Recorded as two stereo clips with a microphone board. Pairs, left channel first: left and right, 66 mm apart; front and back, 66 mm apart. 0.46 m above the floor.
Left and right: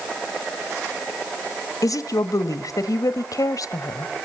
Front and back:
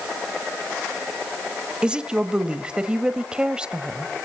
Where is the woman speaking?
105° left, 1.8 m.